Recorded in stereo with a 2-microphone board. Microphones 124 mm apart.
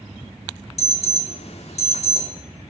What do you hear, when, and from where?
0.8 s an alarm: 60° left (ahead or behind), 3 m